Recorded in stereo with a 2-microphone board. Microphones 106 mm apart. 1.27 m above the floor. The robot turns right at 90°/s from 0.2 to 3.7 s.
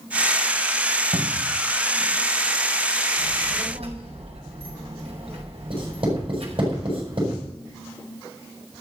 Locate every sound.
1.1 s a cupboard door: 85° right, 1.1 m; by 1.6 s 35° right, 1.1 m
3.2 s a child speaking: 115° right, 6 m; by 6.7 s 65° right, 6 m
5.7 s writing: 55° right (ahead or behind), 8 m